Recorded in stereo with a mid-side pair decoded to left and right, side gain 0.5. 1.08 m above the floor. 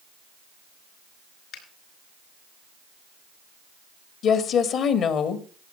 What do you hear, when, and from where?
1.5 s a finger snap: 70° left, 6.5 m
4.2 s a woman speaking: 65° left, 2 m